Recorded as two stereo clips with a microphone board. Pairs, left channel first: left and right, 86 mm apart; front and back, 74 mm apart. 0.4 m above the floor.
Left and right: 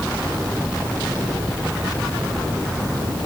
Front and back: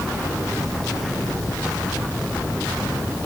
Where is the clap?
No clap in this recording.